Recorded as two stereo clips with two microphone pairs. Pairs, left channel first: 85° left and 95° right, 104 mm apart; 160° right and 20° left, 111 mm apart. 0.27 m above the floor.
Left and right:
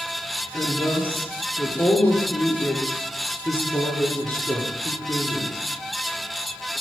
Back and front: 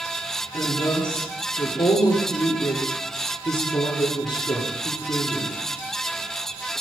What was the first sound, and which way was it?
A woman speaking, 155° left.